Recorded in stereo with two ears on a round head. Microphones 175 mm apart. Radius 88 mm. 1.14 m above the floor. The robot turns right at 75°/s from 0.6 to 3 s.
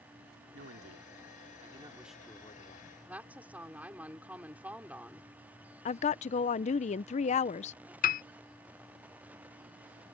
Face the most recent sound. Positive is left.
turn(degrees=40)  # may be behind; listen again after turning